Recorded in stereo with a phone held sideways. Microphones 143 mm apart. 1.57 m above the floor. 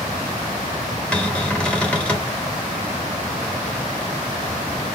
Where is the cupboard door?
5° left (ahead or behind), 1.2 m.